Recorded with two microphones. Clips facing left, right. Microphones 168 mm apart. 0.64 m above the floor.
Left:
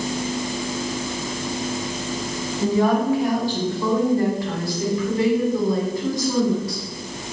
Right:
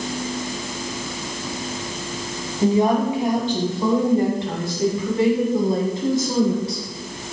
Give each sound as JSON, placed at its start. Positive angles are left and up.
{"t": 2.6, "sound": "a woman speaking", "side_deg": -20, "distance_m": 4.0}